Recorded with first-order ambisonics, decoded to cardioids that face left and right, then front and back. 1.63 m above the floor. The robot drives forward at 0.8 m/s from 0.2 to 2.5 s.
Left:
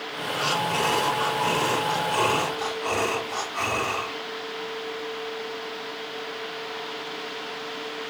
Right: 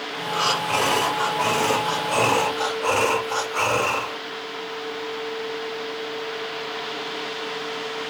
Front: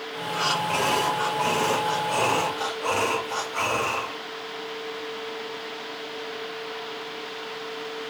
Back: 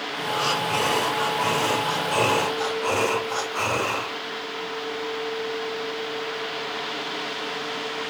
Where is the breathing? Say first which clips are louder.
Right 3 dB, even; 95° right, 5.5 m; by 4.2 s 115° right, 6 m.